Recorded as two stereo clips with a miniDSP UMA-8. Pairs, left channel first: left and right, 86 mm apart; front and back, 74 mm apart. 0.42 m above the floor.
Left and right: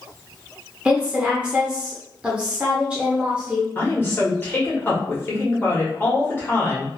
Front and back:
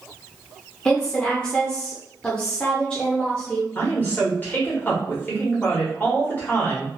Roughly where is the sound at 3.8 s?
Ahead left.